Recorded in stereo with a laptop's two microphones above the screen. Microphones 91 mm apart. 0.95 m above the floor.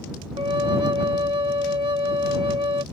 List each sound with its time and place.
0.4 s a flute: 60° right (ahead or behind)